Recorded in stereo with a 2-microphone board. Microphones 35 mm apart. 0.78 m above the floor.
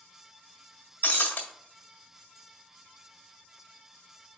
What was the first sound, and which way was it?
Breaking glass, 50° left (ahead or behind).